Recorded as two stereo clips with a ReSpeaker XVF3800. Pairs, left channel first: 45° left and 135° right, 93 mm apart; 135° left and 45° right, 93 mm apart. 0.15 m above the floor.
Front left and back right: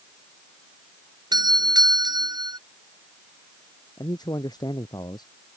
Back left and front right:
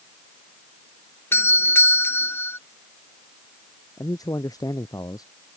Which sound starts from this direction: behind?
A doorbell, at 1.3 s.